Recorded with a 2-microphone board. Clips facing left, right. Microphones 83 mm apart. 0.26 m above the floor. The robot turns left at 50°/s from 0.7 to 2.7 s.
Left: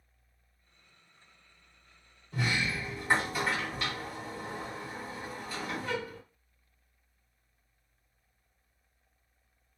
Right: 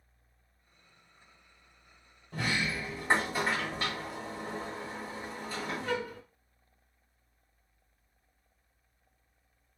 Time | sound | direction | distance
2.3 | a sliding door | 40° right (ahead or behind) | 1.8 m